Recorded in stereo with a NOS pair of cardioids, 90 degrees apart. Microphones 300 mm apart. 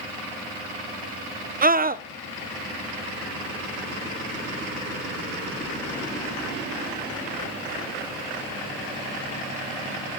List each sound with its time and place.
1.6 s a scream: 30° right, 0.8 m